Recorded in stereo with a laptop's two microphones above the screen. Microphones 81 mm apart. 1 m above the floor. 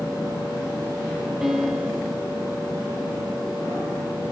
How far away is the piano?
About 5.5 m.